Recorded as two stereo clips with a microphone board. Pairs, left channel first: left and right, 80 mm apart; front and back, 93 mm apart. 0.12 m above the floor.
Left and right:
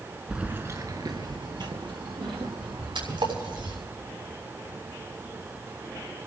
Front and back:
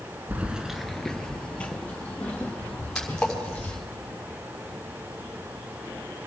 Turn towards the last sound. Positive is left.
turn(degrees=-80)